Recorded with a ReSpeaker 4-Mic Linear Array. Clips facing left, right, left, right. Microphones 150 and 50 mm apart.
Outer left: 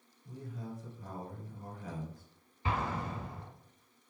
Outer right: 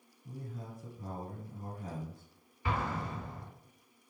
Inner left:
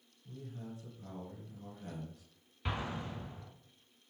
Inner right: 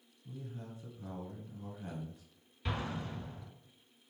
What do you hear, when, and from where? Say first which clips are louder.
0.2 s a man speaking: outer left 1 dB, even; 30° right (ahead or behind), 1.4 m
2.6 s an explosion: even, even; 20° left (ahead or behind), 0.8 m